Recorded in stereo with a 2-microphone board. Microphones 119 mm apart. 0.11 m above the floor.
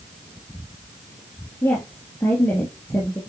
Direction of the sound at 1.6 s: 15° left (ahead or behind).